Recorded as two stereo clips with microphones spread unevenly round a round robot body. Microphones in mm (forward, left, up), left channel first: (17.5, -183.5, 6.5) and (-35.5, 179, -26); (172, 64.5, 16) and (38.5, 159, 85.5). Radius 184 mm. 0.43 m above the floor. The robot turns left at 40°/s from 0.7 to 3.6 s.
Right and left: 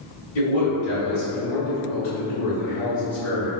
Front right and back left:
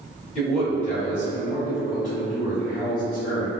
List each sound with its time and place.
0.3 s a man speaking: 45° right, 1.9 m; by 3.5 s 155° right, 1.9 m